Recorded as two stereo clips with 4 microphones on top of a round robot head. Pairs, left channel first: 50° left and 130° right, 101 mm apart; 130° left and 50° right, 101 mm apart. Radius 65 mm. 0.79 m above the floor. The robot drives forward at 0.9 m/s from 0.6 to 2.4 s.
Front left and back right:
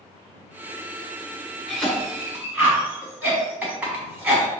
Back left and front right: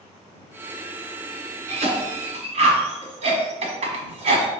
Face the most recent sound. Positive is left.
turn(degrees=-55)